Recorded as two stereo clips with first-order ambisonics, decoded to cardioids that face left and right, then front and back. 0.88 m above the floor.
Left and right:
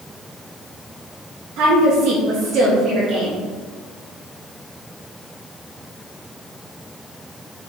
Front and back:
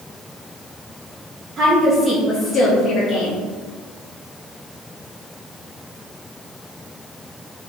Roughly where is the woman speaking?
Behind right.